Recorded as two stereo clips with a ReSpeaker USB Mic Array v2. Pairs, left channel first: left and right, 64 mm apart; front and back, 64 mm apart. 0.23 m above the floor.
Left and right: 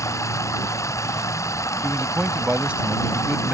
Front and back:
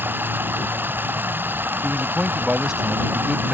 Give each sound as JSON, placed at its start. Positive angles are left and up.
{"t": 0.0, "sound": "running water", "azimuth_deg": 125}
{"t": 1.8, "sound": "a man speaking", "azimuth_deg": -125}